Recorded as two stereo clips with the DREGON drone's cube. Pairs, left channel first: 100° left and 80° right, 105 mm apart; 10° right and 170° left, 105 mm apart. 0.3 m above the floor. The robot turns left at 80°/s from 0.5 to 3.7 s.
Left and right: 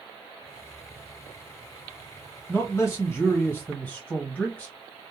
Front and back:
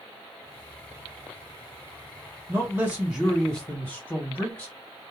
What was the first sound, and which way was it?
A man speaking, 145° left.